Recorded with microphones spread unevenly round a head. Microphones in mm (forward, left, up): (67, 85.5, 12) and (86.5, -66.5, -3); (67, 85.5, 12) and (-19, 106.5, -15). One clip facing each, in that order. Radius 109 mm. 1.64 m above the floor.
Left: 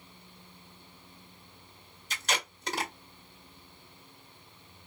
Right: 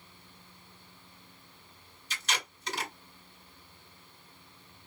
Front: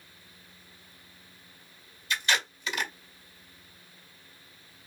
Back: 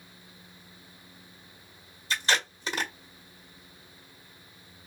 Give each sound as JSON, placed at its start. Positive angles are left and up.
{"t": 2.1, "sound": "tape being pulled", "azimuth_deg": 110, "distance_m": 1.9}